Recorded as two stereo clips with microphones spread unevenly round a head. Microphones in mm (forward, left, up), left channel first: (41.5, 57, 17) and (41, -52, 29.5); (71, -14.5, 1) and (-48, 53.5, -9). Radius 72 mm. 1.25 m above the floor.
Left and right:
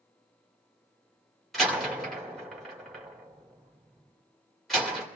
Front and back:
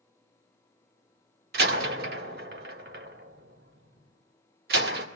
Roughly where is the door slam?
Behind.